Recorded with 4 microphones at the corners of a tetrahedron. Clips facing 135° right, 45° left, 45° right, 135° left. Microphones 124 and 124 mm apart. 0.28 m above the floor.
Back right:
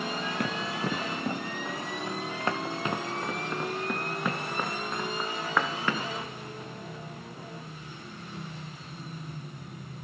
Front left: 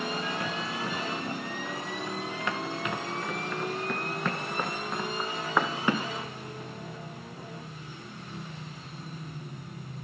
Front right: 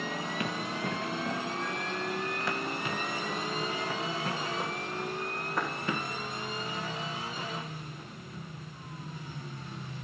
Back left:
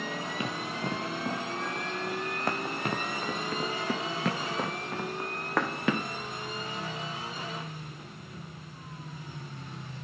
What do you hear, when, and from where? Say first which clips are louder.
0.4 s running footsteps: back right 2 dB, even; 160° right, 2.5 m; by 6.1 s 120° left, 2 m